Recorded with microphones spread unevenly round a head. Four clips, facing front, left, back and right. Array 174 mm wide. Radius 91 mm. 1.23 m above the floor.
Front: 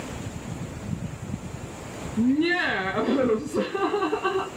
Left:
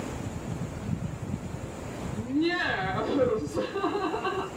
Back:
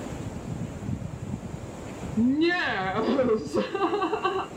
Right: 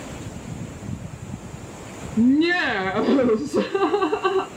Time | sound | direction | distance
2.2 | laughter | 80° right | 1.6 m